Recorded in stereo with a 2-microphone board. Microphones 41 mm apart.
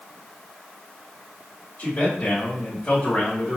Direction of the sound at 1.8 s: 50° left (ahead or behind).